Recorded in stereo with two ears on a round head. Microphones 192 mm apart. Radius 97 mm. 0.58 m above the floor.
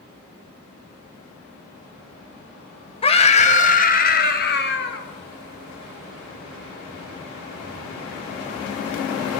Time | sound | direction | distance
3.0 | a scream | 25° left (ahead or behind) | 3 m